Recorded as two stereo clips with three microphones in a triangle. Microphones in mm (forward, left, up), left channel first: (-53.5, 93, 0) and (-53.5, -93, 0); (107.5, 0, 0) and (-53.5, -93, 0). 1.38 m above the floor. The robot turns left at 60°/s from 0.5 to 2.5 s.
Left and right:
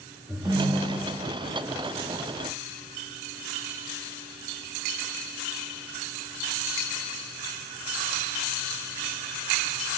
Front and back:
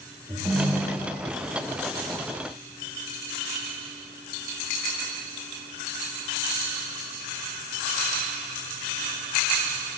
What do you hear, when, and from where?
0.3 s a ringtone: 150° right, 0.9 m; by 1.2 s 165° left, 0.9 m